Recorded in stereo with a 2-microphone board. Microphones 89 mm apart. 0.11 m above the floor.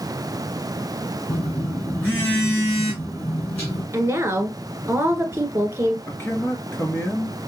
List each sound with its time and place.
1.3 s a phone buzzing: 25° left (ahead or behind), 3.5 m
3.9 s a woman speaking: 30° right (ahead or behind), 1.2 m
6.1 s a man speaking: 25° left (ahead or behind), 1.9 m